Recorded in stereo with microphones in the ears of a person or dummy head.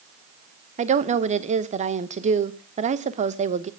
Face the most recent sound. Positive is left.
turn(degrees=-40)  # may be behind; listen again after turning